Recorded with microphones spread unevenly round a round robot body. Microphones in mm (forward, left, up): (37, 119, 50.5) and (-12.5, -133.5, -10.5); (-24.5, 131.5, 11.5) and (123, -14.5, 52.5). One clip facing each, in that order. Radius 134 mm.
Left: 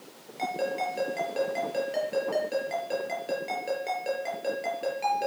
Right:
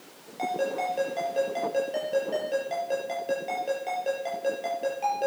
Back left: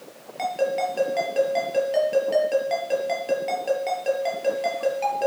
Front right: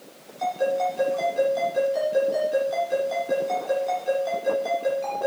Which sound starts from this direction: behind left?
A ringtone, at 0.4 s.